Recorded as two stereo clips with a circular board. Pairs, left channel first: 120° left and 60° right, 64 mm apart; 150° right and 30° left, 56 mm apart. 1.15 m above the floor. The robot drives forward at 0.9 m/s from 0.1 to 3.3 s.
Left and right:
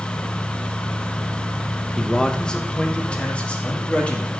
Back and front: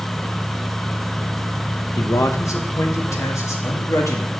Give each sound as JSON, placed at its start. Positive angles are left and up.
{"t": 2.0, "sound": "a man speaking", "azimuth_deg": -155, "distance_m": 1.2}